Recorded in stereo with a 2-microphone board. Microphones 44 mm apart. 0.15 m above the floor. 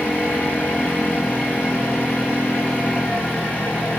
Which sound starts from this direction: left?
An engine running, at 0.0 s.